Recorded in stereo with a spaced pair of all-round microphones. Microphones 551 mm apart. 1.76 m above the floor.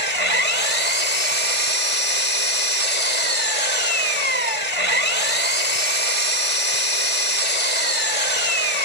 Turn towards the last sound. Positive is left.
turn(degrees=-70)  # may be behind; listen again after turning